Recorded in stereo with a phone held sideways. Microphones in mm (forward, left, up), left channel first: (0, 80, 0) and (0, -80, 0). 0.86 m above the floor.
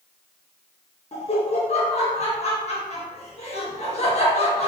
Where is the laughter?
40° left (ahead or behind), 0.8 m.